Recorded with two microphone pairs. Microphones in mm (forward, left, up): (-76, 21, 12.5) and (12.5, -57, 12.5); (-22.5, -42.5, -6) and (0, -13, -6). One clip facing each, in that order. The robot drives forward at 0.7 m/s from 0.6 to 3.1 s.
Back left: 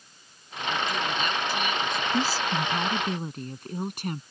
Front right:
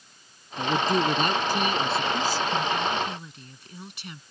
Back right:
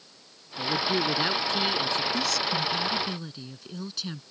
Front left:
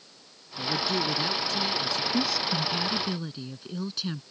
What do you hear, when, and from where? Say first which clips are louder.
0.6 s a man speaking: front right 5 dB, back right 2 dB; 60° right; by 2.0 s 90° right
2.1 s a woman speaking: front right 1 dB, even; 115° left; by 4.2 s 135° left